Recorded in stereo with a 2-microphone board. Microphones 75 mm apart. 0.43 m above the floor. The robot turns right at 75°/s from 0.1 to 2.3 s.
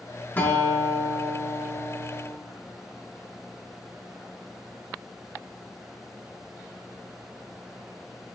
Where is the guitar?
55° left, 0.6 m; by 2.4 s 160° right, 0.6 m.